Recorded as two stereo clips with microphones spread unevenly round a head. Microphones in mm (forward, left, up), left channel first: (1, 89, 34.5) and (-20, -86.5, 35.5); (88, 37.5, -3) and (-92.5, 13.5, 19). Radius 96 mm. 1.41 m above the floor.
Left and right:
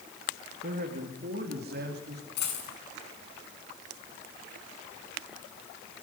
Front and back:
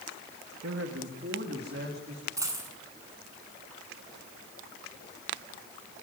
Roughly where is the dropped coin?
Behind left.